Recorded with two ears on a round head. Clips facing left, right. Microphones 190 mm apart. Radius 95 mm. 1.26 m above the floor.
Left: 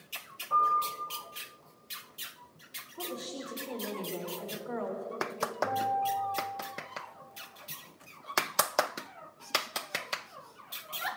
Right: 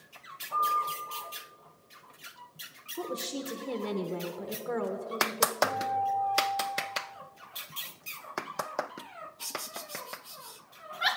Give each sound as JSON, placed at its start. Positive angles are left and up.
{"t": 0.5, "sound": "a piano", "side_deg": 75, "distance_m": 6.0}
{"t": 3.0, "sound": "a woman speaking", "side_deg": -55, "distance_m": 1.2}
{"t": 5.6, "sound": "a guitar", "side_deg": -10, "distance_m": 3.5}